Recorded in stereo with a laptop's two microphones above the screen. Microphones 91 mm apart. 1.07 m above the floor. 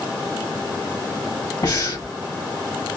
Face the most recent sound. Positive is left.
turn(degrees=50)  # may be behind; listen again after turning